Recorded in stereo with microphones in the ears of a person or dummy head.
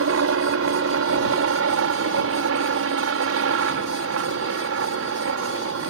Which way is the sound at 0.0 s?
70° right (ahead or behind).